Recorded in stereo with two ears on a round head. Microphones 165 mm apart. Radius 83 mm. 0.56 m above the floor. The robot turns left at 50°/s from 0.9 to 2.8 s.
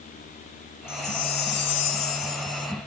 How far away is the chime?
About 1.1 m.